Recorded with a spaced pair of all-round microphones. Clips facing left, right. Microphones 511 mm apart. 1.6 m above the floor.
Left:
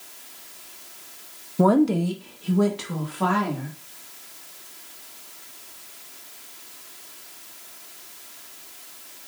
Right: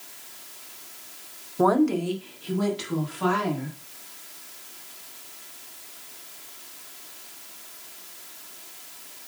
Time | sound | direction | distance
1.6 | a woman speaking | 45° left (ahead or behind) | 0.6 m